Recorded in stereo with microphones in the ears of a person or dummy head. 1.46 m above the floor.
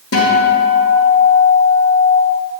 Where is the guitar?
80° left, 2.5 m.